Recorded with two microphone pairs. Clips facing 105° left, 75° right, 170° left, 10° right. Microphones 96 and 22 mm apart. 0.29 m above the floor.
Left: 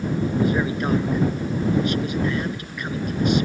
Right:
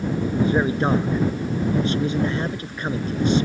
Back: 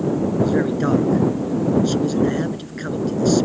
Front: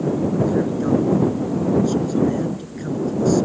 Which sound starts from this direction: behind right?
A man speaking, at 0.4 s.